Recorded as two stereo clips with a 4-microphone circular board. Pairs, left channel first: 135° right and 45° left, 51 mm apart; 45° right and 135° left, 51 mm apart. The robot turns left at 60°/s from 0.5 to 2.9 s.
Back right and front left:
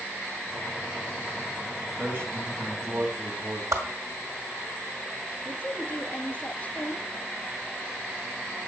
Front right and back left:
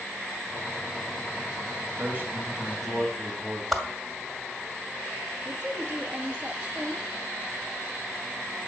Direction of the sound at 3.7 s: 45° left.